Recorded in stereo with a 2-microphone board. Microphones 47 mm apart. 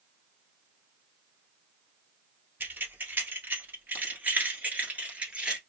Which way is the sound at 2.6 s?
45° right (ahead or behind).